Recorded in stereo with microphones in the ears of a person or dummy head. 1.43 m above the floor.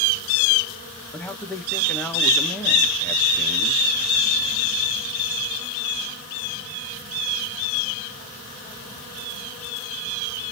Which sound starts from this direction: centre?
A man speaking, at 1.1 s.